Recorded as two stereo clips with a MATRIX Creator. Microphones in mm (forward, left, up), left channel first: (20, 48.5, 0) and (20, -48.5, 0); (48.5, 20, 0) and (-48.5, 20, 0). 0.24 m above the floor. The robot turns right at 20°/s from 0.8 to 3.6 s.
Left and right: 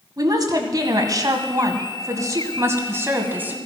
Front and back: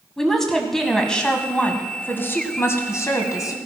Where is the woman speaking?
85° right, 1.9 m; by 3.5 s 30° right, 1.9 m.